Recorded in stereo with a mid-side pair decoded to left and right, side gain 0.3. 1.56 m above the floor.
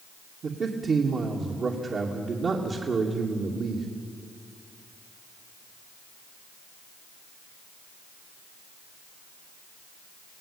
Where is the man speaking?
65° right, 3 m.